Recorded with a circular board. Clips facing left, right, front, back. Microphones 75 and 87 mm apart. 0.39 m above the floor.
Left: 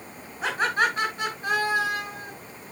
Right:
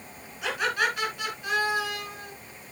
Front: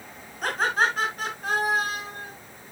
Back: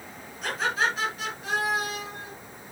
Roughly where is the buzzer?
No buzzer in this recording.